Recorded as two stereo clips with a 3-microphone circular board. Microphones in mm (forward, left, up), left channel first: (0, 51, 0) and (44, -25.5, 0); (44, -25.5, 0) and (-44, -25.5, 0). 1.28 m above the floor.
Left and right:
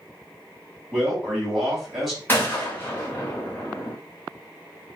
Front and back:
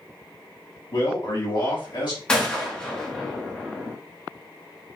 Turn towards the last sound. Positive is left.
turn(degrees=70)